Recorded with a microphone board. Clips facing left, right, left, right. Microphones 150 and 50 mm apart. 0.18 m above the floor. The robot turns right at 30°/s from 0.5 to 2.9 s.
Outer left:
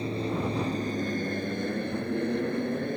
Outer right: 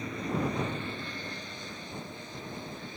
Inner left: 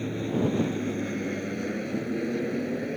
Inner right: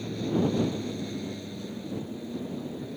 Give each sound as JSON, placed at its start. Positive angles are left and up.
{"t": 0.0, "sound": "an aircraft", "azimuth_deg": 35}